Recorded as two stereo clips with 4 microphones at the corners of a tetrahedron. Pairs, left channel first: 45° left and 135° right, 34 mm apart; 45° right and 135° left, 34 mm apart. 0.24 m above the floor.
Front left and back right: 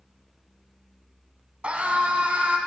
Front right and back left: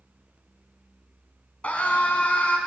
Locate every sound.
1.6 s a scream: 85° right, 1.7 m